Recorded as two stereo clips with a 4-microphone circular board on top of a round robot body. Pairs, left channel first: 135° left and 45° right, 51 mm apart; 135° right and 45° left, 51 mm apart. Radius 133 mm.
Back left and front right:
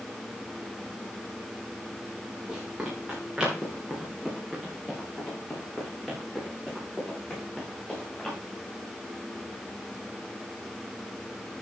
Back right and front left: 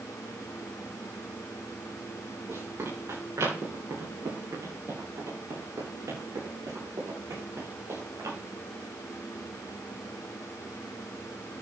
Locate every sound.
2.5 s running footsteps: 30° left, 7 m; by 8.4 s 55° left, 9 m